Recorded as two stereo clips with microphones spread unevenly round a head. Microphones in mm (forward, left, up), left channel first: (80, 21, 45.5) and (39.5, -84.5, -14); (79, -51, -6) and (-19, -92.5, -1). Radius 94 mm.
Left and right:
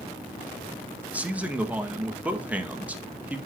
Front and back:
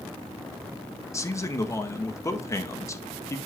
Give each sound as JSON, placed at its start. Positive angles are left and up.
{"t": 1.1, "sound": "a man speaking", "azimuth_deg": -40, "distance_m": 1.9}